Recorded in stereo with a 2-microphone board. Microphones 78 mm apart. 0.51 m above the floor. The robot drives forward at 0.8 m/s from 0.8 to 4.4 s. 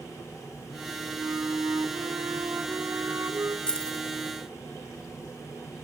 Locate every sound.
1.2 s a flute: 50° right (ahead or behind), 2 m; by 3.6 s 40° right (ahead or behind), 2.5 m
3.7 s keys jangling: 10° left (ahead or behind), 1.8 m